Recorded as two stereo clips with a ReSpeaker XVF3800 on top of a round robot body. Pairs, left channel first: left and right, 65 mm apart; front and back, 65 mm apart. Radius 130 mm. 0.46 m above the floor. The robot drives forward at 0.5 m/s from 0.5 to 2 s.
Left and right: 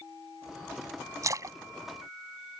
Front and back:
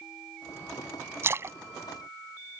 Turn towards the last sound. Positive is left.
turn(degrees=-135)